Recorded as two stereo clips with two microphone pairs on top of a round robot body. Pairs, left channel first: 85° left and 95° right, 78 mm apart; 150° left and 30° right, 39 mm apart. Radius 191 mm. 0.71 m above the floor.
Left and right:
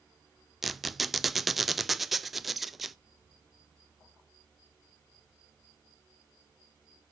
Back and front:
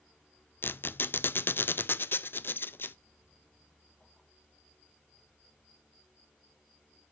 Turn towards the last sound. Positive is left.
turn(degrees=170)